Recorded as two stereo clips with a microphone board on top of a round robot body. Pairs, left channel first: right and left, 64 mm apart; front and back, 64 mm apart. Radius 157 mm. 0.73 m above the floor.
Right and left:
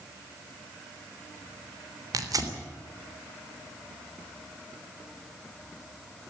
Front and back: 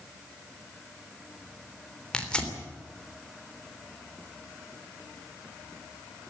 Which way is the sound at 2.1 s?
75° left.